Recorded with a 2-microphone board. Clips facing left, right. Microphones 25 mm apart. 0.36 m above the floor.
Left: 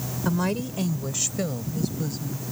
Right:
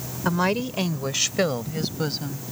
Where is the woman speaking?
25° right (ahead or behind); by 2.4 s 60° right (ahead or behind).